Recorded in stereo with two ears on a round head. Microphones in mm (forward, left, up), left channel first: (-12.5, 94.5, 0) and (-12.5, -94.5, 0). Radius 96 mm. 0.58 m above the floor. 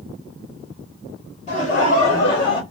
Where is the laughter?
35° left (ahead or behind), 1.8 m; by 2.6 s 20° left (ahead or behind), 1.3 m.